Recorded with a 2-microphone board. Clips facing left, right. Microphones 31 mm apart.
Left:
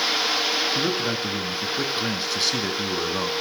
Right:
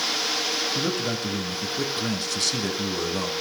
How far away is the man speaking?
About 1.2 m.